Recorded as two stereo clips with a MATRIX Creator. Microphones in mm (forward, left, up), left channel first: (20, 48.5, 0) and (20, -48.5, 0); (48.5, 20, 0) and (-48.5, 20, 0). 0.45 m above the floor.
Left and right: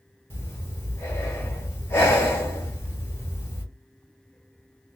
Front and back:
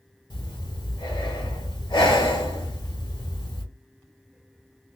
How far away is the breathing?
About 1.4 m.